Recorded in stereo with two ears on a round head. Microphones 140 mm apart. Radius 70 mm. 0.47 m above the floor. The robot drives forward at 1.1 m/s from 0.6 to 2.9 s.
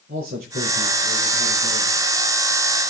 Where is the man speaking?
60° right (ahead or behind), 9.5 m; by 2.0 s 70° right (ahead or behind), 8.5 m.